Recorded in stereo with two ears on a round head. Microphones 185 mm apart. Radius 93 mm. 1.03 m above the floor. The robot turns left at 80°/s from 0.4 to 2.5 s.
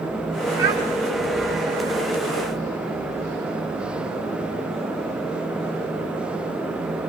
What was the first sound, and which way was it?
A child speaking, 40° right (ahead or behind).